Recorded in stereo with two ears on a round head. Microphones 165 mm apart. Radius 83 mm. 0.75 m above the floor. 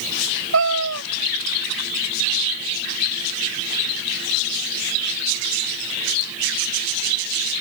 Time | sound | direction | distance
0.5 | a cat meowing | 80° right | ?